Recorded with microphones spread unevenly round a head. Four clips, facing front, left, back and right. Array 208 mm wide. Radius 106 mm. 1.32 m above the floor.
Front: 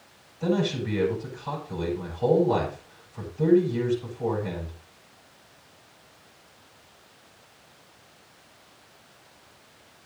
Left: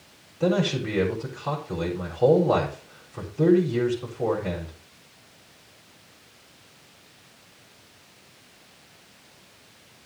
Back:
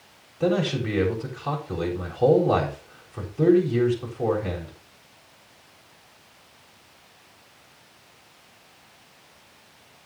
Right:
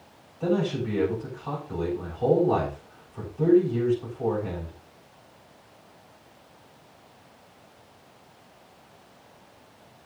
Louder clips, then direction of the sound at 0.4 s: Left 2 dB, back 2 dB; 140° left.